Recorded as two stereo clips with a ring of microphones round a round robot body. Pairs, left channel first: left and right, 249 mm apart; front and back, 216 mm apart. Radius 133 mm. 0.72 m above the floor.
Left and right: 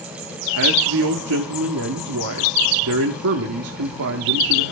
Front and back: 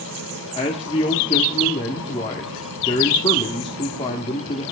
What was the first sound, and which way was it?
A man speaking, 70° right.